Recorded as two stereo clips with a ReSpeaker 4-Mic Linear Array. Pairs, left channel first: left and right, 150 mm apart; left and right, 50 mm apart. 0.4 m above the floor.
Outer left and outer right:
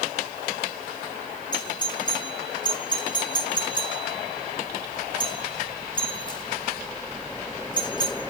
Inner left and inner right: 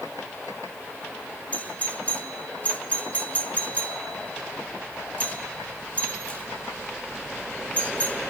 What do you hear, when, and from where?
1.5 s a doorbell: 30° left (ahead or behind), 1.6 m